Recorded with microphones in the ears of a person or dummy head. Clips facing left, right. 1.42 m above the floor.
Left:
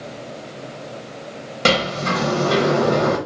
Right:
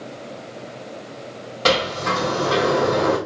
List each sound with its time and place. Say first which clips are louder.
1.6 s a sliding door: left 1 dB; 30° left (ahead or behind), 1.5 m